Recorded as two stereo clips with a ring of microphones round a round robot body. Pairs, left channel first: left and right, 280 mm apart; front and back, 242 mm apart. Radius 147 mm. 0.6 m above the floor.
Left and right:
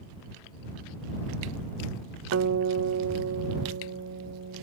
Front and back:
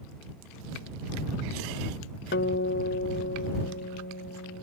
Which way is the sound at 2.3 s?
50° right.